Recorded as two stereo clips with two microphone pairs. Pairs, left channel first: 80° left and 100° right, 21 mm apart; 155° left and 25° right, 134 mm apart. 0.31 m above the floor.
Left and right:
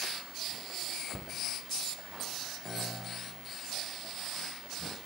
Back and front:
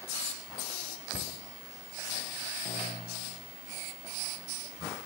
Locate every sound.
1.1 s a cupboard door: 165° left, 4.5 m
2.6 s a piano: 110° left, 6.5 m